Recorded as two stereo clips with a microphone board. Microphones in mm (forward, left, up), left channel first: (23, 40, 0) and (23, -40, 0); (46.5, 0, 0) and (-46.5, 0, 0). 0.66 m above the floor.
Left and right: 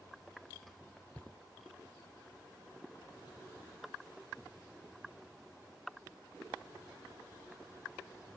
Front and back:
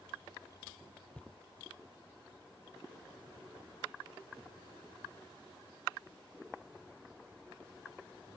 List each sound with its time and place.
1.1 s footsteps: 65° left, 0.7 m